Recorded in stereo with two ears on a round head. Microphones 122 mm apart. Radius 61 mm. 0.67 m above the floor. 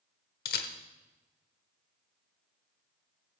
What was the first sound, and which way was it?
A camera shutter, 75° left (ahead or behind).